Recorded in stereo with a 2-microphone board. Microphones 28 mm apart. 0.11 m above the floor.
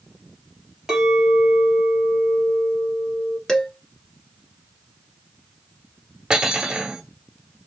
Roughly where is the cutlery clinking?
Right.